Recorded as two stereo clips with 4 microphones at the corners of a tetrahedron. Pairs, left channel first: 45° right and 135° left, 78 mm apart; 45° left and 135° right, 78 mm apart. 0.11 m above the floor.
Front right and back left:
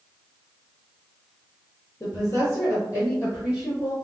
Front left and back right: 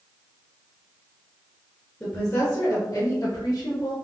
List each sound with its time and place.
2.0 s a woman speaking: 25° right, 1.5 m; by 3.9 s 10° left, 3 m